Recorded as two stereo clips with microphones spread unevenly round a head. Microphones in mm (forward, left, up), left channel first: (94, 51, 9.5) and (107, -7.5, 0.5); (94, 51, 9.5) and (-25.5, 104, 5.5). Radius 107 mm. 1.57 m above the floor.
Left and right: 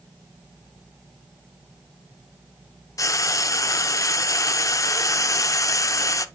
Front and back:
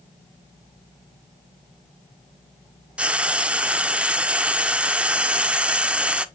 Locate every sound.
3.0 s frying: 75° left, 0.7 m